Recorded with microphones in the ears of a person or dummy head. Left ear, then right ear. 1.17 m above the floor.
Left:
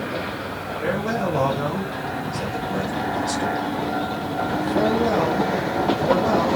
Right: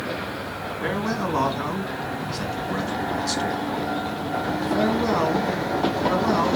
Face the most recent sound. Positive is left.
turn(degrees=-25)  # may be behind; listen again after turning